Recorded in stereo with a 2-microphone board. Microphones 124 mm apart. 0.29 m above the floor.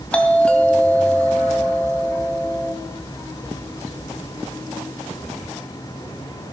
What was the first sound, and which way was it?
A doorbell, 10° left (ahead or behind).